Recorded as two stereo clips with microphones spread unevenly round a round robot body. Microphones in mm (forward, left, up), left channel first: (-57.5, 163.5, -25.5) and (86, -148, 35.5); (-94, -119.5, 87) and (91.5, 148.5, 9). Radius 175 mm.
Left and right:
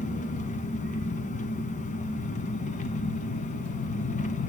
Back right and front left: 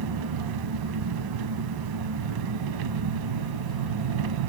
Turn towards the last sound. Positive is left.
turn(degrees=45)